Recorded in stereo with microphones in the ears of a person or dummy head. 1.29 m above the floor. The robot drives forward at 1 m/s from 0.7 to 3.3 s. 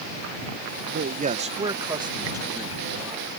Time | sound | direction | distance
0.9 | a man speaking | 55° right (ahead or behind) | ?